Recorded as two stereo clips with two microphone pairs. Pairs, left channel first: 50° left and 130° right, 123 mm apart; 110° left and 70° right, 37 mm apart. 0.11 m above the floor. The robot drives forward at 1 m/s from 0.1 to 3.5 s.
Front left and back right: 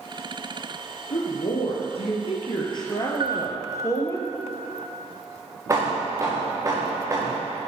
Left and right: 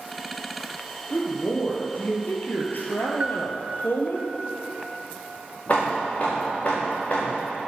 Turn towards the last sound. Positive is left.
turn(degrees=165)